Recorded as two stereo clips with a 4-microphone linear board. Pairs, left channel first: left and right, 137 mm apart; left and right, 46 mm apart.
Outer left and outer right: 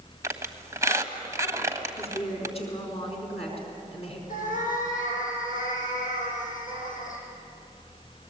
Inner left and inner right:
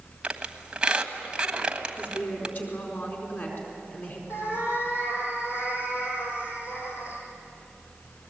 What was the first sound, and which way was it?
A squeak, 20° right (ahead or behind).